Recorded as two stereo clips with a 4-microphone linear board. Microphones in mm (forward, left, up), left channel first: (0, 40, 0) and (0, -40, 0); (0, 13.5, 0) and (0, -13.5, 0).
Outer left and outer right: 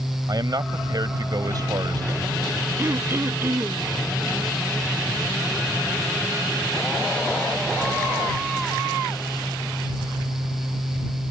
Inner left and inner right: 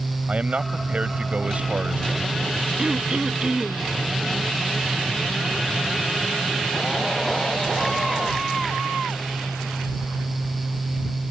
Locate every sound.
0.3 s a man speaking: 55° right (ahead or behind)
2.8 s throat clearing: 35° right (ahead or behind)